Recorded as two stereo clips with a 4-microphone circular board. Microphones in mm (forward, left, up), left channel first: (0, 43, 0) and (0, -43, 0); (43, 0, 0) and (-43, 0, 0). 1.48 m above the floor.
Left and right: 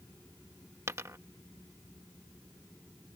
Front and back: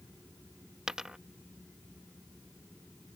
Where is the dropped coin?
105° right.